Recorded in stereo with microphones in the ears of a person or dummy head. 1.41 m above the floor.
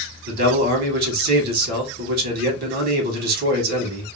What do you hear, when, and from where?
0.3 s a man speaking: 55° right (ahead or behind), 1.5 m